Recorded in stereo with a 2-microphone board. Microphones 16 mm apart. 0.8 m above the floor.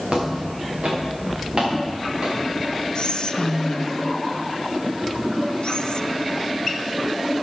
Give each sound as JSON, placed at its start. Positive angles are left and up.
{"t": 0.1, "sound": "footsteps", "side_deg": -60, "distance_m": 4.5}
{"t": 3.0, "sound": "whispering", "side_deg": 50, "distance_m": 0.5}